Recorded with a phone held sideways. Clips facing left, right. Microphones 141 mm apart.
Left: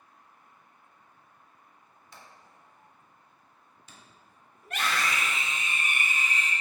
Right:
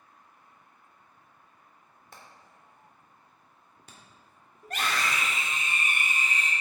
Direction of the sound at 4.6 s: 40° right (ahead or behind).